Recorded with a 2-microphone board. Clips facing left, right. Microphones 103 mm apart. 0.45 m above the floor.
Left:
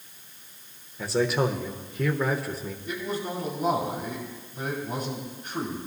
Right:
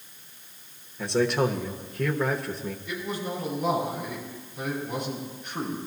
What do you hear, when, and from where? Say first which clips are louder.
1.0 s a man speaking: right 1 dB; 5° left (ahead or behind), 1.0 m
2.9 s a man speaking: left 2 dB; 40° left (ahead or behind), 6 m